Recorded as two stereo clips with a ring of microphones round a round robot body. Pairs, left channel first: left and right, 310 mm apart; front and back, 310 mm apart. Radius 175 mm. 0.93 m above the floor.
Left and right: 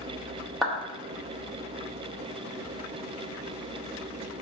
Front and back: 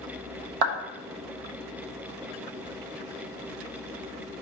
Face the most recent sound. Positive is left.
turn(degrees=180)